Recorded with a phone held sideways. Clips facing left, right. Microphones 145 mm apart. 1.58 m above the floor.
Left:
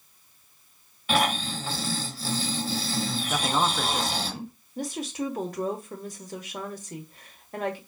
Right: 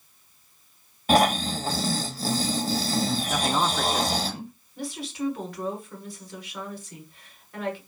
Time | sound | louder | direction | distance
1.1 | snoring | right 5 dB | 40° right (ahead or behind) | 0.8 m
3.3 | a man speaking | left 2 dB | centre (ahead or behind) | 0.6 m
4.8 | a woman speaking | left 1 dB | 40° left (ahead or behind) | 1.3 m